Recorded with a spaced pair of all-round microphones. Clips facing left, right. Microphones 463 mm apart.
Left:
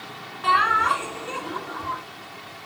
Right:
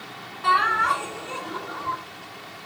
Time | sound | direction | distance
0.4 | laughter | 75° left (ahead or behind) | 3 m